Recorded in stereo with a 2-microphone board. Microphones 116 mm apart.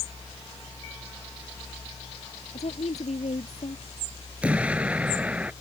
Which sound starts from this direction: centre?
An explosion, at 4.4 s.